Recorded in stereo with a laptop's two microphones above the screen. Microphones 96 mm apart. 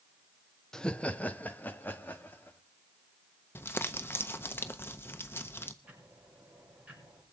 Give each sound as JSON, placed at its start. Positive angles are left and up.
{"t": 0.7, "sound": "laughter", "side_deg": 5, "distance_m": 0.6}
{"t": 3.5, "sound": "crumpling", "side_deg": 25, "distance_m": 0.6}
{"t": 5.8, "sound": "ticking", "side_deg": -15, "distance_m": 5.5}